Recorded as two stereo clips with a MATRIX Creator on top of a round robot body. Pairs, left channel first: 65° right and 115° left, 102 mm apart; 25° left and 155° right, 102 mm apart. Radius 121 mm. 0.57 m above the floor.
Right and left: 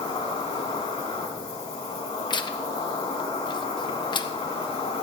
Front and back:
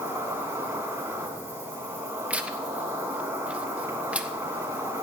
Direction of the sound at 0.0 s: 90° right.